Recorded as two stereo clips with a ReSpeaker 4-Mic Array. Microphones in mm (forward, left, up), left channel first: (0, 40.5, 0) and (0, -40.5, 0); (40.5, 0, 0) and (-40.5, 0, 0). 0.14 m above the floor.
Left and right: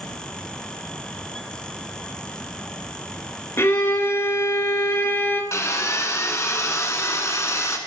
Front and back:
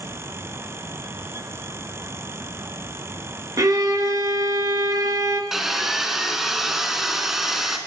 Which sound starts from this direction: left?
Sawing, at 5.5 s.